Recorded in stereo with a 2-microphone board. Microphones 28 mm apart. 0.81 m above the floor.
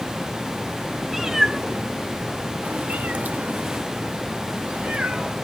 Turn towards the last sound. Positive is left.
turn(degrees=-50)  # may be behind; listen again after turning